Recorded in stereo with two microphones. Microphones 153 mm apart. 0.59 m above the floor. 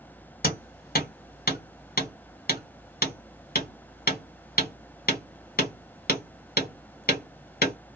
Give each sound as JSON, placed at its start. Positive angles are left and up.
{"t": 0.4, "sound": "hammering", "side_deg": 65, "distance_m": 1.5}